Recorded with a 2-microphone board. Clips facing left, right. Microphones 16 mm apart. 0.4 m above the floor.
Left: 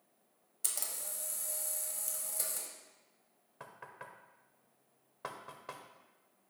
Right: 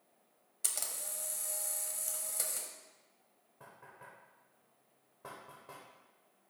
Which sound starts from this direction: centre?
A camera shutter, at 0.6 s.